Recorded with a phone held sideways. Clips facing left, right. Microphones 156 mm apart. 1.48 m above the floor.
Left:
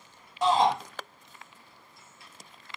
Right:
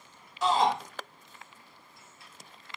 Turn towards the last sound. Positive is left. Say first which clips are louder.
# left 2 dB
turn(degrees=55)  # may be behind; listen again after turning